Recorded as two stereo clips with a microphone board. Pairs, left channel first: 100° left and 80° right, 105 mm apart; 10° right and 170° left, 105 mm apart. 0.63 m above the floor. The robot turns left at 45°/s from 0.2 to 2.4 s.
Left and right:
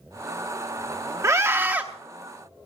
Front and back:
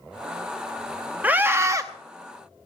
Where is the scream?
120° right, 0.7 m; by 1.8 s 150° right, 0.7 m.